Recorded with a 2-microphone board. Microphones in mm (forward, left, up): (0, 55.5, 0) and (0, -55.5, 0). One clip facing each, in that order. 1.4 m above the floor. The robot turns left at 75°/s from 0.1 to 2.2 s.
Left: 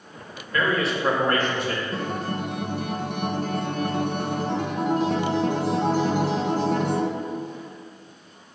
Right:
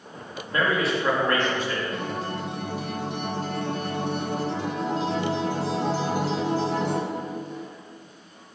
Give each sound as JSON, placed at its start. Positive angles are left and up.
{"t": 0.5, "sound": "a man speaking", "azimuth_deg": -150, "distance_m": 2.5}
{"t": 1.9, "sound": "a guitar", "side_deg": 30, "distance_m": 1.2}